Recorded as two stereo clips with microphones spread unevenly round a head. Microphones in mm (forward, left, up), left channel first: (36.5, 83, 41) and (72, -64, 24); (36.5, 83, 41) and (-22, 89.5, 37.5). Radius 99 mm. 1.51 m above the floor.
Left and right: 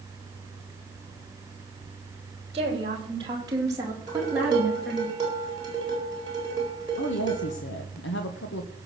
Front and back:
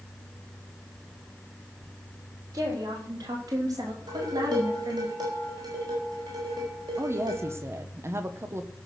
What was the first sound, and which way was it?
A woman speaking, 135° right.